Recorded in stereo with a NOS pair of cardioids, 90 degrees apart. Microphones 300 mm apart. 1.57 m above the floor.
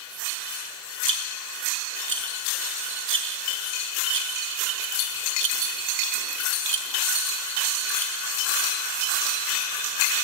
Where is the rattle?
45° right, 5.5 m.